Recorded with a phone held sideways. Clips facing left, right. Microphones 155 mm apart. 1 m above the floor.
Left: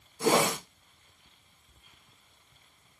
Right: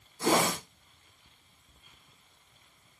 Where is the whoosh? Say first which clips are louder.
Left 2 dB; 15° left (ahead or behind), 0.8 m.